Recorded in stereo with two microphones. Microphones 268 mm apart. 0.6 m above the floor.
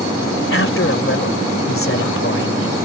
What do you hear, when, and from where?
0.5 s a man speaking: 50° left (ahead or behind)